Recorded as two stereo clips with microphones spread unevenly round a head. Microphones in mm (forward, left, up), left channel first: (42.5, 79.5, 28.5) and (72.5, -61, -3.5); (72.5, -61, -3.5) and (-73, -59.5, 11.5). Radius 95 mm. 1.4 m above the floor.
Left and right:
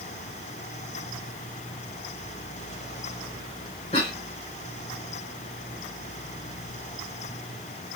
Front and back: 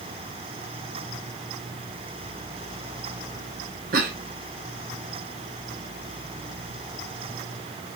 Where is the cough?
155° left, 0.7 m.